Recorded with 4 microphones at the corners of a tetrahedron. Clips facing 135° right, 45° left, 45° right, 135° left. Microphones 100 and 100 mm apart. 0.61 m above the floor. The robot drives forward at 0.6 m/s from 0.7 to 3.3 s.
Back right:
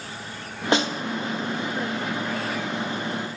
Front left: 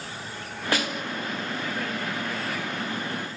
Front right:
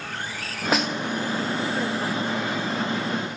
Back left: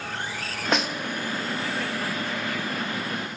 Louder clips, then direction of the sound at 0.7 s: Back right 5 dB, front right 2 dB; 125° right.